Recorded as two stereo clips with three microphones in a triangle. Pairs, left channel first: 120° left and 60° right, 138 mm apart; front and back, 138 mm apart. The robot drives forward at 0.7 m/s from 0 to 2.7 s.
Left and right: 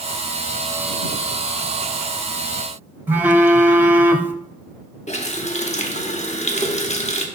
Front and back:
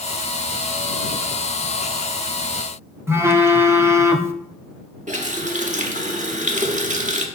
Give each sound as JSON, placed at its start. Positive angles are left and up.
{"t": 3.1, "sound": "a phone buzzing", "azimuth_deg": -125, "distance_m": 0.6}
{"t": 5.1, "sound": "a running tap", "azimuth_deg": 155, "distance_m": 0.9}